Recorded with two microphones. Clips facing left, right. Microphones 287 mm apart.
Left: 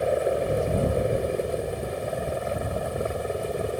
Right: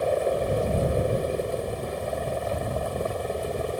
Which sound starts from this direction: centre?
A helicopter, at 0.0 s.